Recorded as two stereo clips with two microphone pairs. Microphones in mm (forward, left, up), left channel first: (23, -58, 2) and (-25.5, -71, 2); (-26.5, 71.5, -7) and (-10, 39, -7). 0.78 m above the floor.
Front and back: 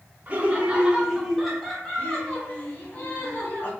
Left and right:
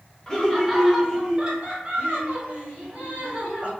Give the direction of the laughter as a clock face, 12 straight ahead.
6 o'clock.